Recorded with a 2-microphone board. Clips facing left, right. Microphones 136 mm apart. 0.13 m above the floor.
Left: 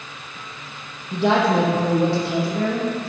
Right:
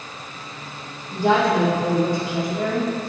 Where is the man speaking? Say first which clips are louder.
Even; 70° left (ahead or behind), 4 m; by 3.1 s 75° left (ahead or behind), 7 m.